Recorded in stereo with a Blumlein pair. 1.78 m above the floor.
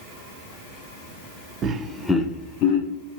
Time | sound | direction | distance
1.6 | laughter | 30° right | 0.5 m